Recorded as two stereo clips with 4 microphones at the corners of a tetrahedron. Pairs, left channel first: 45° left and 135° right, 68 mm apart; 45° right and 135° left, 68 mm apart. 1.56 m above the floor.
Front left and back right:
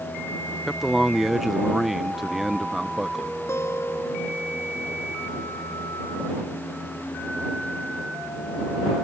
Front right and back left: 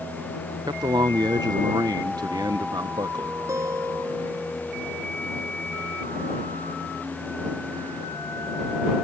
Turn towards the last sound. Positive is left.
turn(degrees=95)